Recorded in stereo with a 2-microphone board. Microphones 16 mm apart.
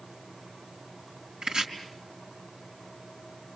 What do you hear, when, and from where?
1.4 s chopping: 70° right (ahead or behind), 4 m